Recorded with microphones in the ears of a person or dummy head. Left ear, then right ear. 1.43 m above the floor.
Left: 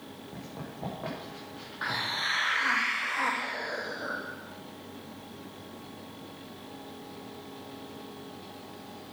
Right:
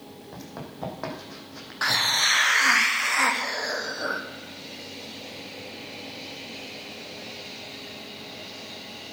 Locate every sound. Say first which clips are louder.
0.3 s running footsteps: right 4 dB; 60° right (ahead or behind), 4 m; by 1.8 s 70° right (ahead or behind), 4 m
1.8 s a hiss: right 9 dB; 80° right, 1.0 m